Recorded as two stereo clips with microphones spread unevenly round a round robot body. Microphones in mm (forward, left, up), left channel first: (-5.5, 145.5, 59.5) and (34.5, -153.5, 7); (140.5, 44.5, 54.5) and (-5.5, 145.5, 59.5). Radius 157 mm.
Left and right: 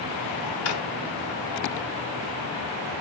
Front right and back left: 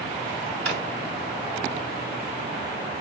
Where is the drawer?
125° left, 1.5 m.